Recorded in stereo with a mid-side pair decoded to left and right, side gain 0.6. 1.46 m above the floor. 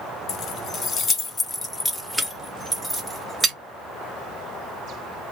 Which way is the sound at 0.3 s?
50° left.